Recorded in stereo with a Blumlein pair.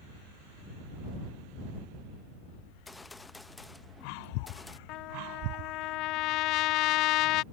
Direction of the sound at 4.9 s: 40° left.